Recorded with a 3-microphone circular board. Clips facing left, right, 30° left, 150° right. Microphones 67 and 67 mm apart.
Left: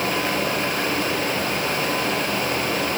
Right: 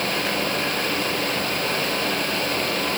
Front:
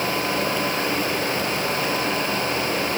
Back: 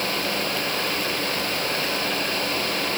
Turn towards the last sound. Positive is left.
No sound to turn to.